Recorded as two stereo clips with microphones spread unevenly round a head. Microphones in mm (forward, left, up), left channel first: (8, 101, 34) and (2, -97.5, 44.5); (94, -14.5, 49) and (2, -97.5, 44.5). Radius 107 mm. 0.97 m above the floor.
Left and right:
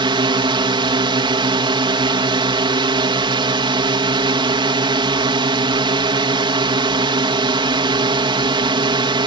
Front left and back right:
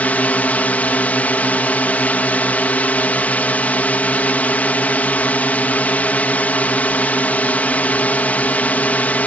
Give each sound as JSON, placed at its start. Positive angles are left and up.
{"t": 0.0, "sound": "a drone", "azimuth_deg": -30}